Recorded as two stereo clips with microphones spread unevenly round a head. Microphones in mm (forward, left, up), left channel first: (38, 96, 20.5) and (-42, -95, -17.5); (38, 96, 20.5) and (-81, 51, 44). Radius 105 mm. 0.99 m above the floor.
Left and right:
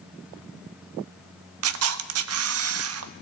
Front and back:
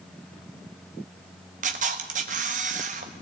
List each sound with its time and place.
1.6 s a camera shutter: 115° right, 0.9 m